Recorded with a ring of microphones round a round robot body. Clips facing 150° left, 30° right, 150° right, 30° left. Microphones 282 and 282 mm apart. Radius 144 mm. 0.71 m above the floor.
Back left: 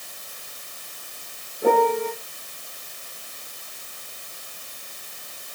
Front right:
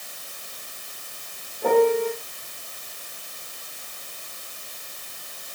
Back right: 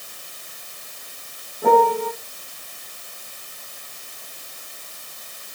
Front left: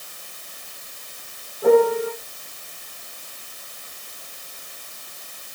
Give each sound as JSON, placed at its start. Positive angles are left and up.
{"t": 1.6, "sound": "a piano", "azimuth_deg": -135, "distance_m": 5.5}